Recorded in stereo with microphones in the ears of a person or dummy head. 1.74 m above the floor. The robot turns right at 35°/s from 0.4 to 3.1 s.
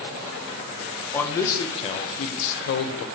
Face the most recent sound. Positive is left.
turn(degrees=80)